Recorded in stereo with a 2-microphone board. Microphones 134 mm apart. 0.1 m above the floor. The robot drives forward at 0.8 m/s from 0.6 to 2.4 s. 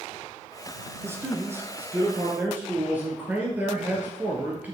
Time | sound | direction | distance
1.0 | a man speaking | 15° right (ahead or behind) | 1.1 m